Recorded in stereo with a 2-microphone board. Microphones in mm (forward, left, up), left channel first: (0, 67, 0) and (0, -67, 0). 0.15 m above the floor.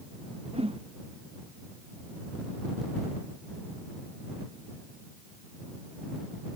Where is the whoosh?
45° right (ahead or behind).